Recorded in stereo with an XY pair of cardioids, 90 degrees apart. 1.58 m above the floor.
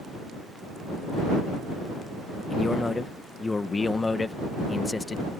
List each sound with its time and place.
2.5 s a man speaking: 25° left